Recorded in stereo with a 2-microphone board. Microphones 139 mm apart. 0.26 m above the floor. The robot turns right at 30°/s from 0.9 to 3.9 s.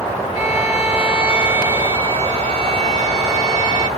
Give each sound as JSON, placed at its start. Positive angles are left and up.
{"t": 0.3, "sound": "a violin", "azimuth_deg": 180, "distance_m": 1.7}